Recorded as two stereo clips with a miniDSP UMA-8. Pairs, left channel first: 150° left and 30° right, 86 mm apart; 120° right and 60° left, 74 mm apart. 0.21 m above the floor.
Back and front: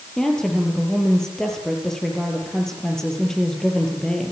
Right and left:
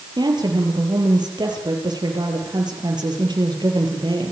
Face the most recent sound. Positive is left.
turn(degrees=65)